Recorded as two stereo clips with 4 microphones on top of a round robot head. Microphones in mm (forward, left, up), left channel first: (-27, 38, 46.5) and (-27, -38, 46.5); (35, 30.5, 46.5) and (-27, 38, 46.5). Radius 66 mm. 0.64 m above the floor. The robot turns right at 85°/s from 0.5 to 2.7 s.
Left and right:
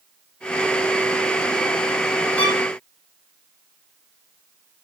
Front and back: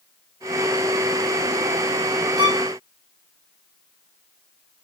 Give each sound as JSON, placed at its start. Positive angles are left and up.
{"t": 2.4, "sound": "a violin", "azimuth_deg": 160, "distance_m": 1.7}